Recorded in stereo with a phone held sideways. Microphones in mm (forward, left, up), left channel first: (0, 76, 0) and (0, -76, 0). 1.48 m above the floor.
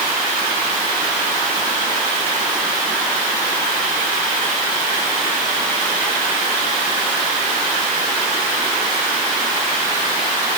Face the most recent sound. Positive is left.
No sound to turn to.